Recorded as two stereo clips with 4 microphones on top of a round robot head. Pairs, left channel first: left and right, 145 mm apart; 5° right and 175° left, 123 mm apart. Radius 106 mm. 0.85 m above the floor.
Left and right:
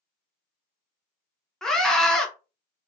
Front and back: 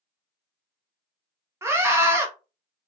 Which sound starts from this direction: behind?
A scream, at 1.6 s.